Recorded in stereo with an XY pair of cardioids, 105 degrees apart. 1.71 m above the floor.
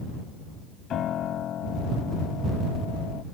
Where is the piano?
65° left.